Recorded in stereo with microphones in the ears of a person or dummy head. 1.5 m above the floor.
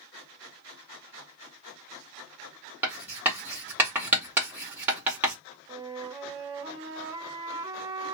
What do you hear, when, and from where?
2.8 s writing: 10° right (ahead or behind), 1.3 m
5.7 s a flute: 15° right (ahead or behind), 0.6 m